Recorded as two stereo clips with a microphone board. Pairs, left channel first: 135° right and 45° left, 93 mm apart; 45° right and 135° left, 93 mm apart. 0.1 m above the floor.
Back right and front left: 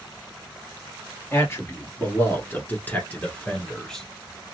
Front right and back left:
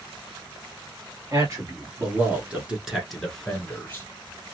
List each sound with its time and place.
1.3 s a man speaking: 175° left, 1.7 m; by 4.1 s 55° right, 1.3 m